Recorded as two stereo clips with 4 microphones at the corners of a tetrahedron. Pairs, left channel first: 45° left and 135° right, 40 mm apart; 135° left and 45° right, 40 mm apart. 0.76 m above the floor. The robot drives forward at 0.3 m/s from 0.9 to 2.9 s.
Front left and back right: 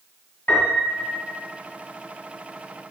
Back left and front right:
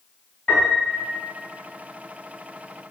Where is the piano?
80° left, 1.3 m; by 1.2 s 85° left, 1.3 m.